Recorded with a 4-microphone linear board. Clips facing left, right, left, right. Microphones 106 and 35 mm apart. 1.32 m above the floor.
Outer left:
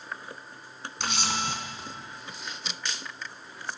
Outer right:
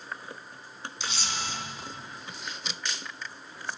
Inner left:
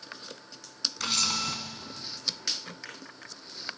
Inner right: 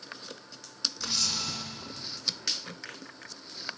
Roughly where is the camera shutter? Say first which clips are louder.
Outer left 5 dB, inner left 4 dB; left.